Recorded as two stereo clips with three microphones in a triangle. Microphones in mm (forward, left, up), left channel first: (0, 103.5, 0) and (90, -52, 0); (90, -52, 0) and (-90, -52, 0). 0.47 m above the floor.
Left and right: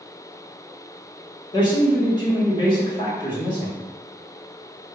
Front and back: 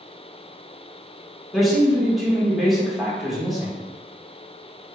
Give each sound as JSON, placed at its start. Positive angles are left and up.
{"t": 1.5, "sound": "a man speaking", "azimuth_deg": 90, "distance_m": 1.3}